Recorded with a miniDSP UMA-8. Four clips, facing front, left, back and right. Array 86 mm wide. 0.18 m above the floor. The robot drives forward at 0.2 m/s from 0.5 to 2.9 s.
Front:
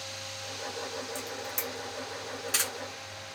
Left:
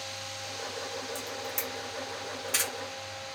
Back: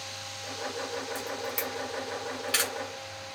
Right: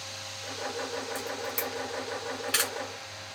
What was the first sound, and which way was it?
A camera shutter, 135° right.